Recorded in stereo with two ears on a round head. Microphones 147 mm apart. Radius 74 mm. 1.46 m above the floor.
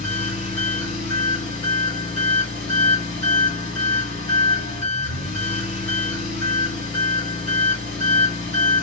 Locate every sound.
0.0 s an engine running: 45° left (ahead or behind), 1.9 m